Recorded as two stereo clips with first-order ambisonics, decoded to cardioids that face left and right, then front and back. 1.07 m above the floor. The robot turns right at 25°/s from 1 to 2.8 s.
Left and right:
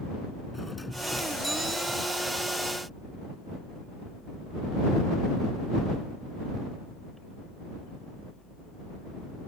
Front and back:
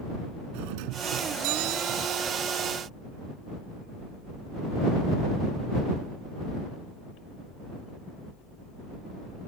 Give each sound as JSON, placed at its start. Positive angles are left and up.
{"t": 0.5, "sound": "a doorbell", "azimuth_deg": 175}